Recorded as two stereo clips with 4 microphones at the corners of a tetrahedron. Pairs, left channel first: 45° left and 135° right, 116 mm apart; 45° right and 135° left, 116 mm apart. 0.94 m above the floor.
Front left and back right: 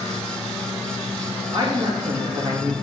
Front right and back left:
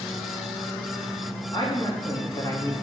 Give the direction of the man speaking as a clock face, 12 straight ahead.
3 o'clock.